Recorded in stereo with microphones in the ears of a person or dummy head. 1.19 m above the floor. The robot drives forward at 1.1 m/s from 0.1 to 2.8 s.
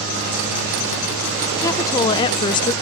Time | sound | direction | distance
1.6 | a woman speaking | 15° left (ahead or behind) | ?